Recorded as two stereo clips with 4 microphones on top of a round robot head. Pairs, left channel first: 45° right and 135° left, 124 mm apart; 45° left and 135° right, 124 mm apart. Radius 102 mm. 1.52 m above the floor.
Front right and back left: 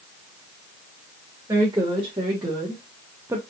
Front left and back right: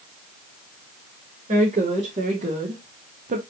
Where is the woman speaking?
160° right, 2.5 m; by 3.4 s 155° right, 0.5 m.